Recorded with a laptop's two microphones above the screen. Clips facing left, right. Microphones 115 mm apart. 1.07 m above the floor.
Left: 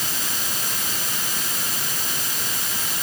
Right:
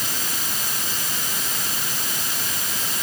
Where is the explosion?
I don't hear an explosion.